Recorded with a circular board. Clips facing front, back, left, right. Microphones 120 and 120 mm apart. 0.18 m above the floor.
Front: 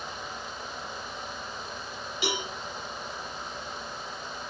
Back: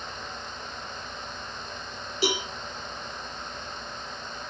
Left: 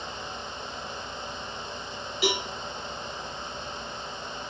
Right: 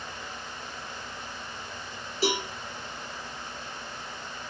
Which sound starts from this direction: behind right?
A cowbell, at 2.2 s.